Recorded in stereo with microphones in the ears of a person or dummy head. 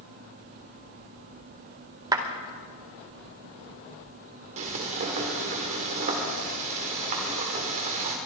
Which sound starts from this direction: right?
Frying, at 4.6 s.